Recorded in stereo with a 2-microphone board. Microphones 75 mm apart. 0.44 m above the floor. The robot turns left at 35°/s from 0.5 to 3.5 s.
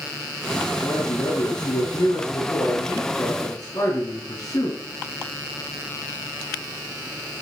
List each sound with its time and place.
0.8 s a man speaking: 145° left, 4.5 m; by 4.8 s 50° left, 4.5 m